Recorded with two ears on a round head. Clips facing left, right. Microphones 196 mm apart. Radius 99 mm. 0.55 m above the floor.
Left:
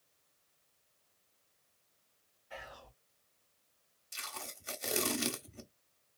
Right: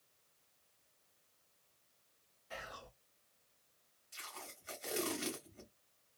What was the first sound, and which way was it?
Whispering, 50° right (ahead or behind).